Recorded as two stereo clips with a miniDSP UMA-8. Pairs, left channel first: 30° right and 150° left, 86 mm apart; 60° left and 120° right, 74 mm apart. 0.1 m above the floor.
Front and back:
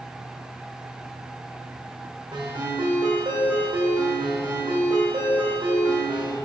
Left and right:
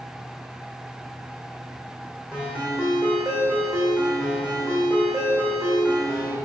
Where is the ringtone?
165° left, 3.5 m.